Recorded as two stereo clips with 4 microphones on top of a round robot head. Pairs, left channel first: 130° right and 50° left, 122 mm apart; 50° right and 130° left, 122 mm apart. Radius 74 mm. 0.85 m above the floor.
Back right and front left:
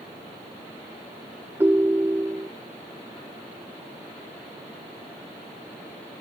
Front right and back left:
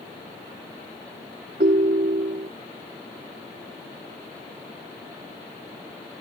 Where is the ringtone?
125° left.